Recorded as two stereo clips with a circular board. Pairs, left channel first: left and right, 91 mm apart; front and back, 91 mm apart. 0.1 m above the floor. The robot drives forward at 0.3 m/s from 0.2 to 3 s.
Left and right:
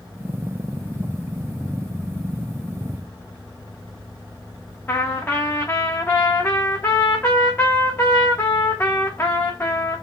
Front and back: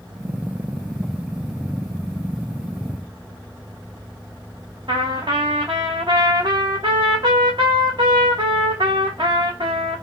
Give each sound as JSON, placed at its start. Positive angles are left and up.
{"t": 4.9, "sound": "a trumpet", "azimuth_deg": 155, "distance_m": 1.2}